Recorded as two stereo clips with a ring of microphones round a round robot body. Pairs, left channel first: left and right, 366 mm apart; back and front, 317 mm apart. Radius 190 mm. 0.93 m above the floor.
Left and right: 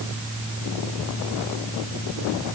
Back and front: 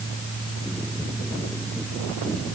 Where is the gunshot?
No gunshot in this recording.